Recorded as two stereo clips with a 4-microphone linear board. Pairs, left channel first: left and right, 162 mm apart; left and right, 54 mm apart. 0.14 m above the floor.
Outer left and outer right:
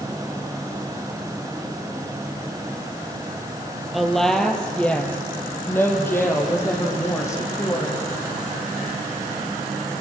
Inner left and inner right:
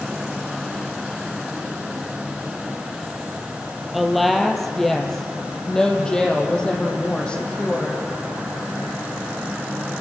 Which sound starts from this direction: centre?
A woman speaking, at 3.9 s.